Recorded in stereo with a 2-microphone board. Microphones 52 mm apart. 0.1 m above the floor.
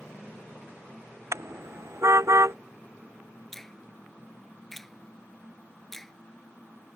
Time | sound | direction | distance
1.3 | a car horn | 70° right (ahead or behind) | ?
3.5 | a finger snap | 5° left (ahead or behind) | ?